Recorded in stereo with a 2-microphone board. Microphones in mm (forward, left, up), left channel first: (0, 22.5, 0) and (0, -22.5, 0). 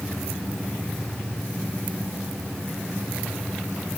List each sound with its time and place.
Only background noise.